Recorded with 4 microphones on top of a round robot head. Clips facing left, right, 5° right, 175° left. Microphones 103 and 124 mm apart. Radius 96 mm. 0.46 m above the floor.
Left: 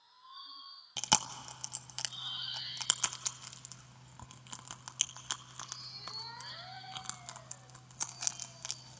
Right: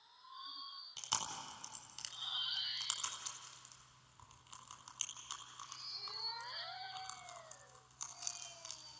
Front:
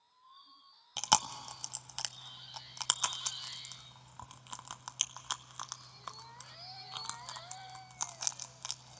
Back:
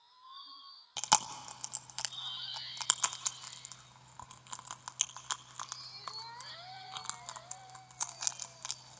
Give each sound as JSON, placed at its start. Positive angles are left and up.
{"t": 1.0, "sound": "chewing", "azimuth_deg": 80, "distance_m": 0.5}